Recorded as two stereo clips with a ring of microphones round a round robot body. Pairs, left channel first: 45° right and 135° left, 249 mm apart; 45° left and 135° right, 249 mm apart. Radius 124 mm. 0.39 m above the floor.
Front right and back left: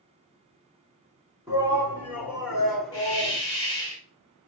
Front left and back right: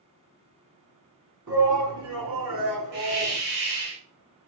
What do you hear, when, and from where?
1.5 s a shout: 150° right, 4.5 m; by 3.4 s 130° right, 4.5 m
2.9 s a hiss: 120° right, 5 m